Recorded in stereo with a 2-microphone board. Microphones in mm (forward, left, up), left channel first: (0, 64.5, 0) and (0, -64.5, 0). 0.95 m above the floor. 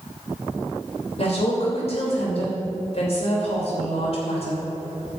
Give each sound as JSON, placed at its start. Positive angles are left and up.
{"t": 1.2, "sound": "a woman speaking", "side_deg": 55, "distance_m": 3.0}